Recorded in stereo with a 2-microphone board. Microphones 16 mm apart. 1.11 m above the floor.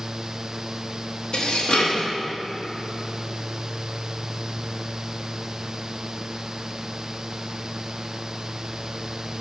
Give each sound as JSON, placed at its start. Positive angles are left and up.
{"t": 1.3, "sound": "dishes clattering", "side_deg": 65, "distance_m": 0.8}